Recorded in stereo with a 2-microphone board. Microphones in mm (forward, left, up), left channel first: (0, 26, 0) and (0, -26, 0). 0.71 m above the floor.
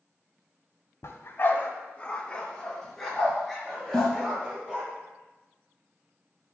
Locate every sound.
1.0 s a dog barking: 65° left (ahead or behind), 1.6 m; by 4.9 s 10° right (ahead or behind), 6 m
3.9 s a snare drum: 5° left (ahead or behind), 3 m